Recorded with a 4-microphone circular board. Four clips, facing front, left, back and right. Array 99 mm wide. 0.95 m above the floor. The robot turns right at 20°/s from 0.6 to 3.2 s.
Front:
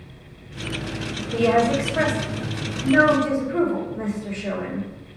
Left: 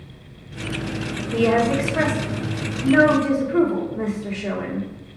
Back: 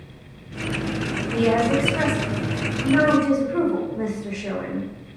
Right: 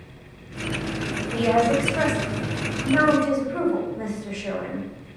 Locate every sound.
1.3 s a woman speaking: 65° left, 1.1 m; by 4.9 s 100° left, 1.1 m